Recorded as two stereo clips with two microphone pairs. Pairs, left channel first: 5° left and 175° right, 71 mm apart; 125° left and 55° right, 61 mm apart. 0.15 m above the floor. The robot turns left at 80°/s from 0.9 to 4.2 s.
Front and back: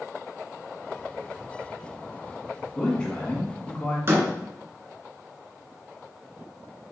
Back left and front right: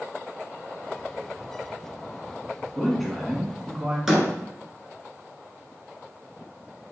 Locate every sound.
2.8 s a man speaking: 60° left, 1.5 m; by 4.0 s 35° right, 1.5 m
4.1 s a door slam: 130° right, 1.4 m; by 4.3 s 145° right, 1.4 m